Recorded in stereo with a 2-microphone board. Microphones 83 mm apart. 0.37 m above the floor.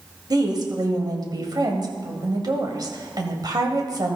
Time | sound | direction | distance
0.3 | a woman speaking | 50° right (ahead or behind) | 2 m